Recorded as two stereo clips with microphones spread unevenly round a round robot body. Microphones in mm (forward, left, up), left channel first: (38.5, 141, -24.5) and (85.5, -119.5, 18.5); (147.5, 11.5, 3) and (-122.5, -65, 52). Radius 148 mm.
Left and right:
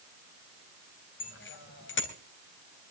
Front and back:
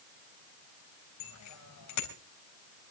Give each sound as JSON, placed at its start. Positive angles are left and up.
{"t": 1.2, "sound": "a bicycle bell", "azimuth_deg": 55, "distance_m": 3.5}